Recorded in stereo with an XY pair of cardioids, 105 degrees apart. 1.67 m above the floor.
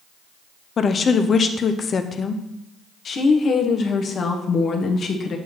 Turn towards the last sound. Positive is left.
turn(degrees=50)